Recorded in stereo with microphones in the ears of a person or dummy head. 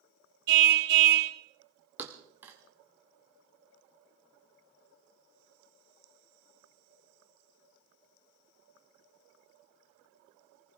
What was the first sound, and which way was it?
A car horn, 55° right (ahead or behind).